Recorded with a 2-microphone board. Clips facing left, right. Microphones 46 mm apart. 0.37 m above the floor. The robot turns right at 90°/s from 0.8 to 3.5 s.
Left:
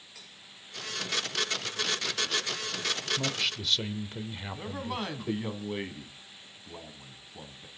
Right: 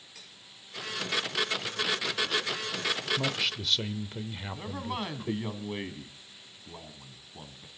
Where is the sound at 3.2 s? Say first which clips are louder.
Right 1 dB; 15° right (ahead or behind), 0.8 m; by 5.5 s centre (ahead or behind), 0.8 m.